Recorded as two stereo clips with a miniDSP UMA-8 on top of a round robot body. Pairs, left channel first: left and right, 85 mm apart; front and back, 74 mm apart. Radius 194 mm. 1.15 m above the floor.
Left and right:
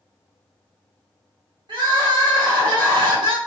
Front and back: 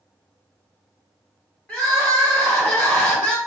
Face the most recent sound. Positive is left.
turn(degrees=-70)